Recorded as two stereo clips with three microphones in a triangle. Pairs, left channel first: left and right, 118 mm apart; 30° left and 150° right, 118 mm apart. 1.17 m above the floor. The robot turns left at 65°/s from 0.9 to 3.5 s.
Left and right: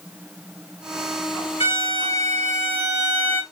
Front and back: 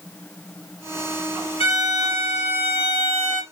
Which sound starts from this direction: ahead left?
A violin, at 1.6 s.